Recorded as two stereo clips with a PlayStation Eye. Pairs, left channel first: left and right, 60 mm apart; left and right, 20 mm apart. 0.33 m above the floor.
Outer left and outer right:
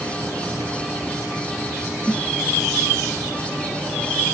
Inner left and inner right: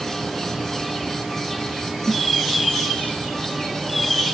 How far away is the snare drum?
About 0.8 m.